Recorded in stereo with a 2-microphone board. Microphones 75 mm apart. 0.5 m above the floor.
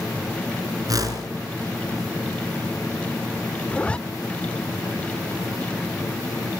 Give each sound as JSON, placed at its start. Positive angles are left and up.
{"t": 0.9, "sound": "a whoosh", "side_deg": -55, "distance_m": 4.0}
{"t": 3.7, "sound": "a zipper", "side_deg": 15, "distance_m": 0.7}